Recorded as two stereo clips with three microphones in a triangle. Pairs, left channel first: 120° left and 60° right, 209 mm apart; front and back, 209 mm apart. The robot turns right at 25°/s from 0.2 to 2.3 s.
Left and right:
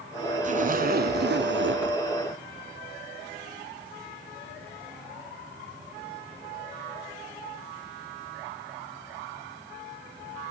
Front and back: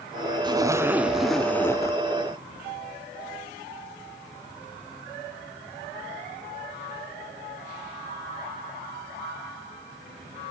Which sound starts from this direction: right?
A zipper, at 0.4 s.